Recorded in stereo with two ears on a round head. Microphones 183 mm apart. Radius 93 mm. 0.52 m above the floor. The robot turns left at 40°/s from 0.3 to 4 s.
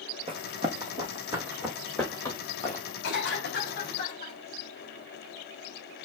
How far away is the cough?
About 2 m.